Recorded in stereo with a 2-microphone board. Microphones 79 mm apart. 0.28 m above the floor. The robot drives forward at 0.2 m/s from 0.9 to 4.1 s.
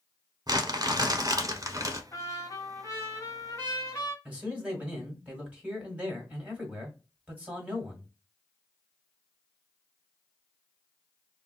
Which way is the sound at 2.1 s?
35° left (ahead or behind).